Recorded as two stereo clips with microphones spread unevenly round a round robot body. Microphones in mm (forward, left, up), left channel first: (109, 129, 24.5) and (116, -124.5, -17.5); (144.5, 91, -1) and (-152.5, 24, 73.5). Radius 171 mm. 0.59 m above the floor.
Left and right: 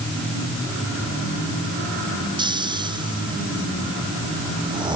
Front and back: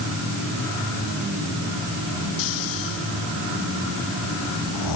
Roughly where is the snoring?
Ahead.